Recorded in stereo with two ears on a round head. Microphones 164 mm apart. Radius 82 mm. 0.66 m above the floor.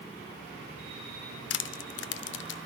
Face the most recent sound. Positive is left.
turn(degrees=70)  # may be behind; listen again after turning